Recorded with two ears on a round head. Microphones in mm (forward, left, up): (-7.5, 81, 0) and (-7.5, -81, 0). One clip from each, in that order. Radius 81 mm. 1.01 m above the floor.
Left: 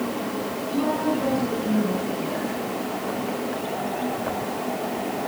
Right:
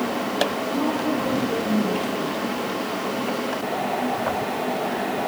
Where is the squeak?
No squeak in this recording.